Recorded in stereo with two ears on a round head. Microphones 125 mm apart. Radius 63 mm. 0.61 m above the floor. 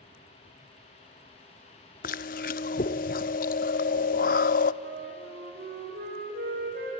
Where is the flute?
80° right, 6 m.